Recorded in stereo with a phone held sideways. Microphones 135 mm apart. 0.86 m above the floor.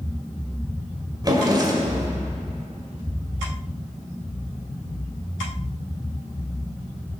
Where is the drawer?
30° right (ahead or behind), 1.9 m.